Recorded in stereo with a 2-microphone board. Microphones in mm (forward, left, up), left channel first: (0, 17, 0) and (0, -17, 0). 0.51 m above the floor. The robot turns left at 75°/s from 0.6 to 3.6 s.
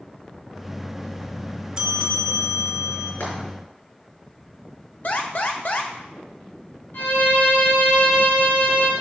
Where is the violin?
70° left (ahead or behind), 4 m.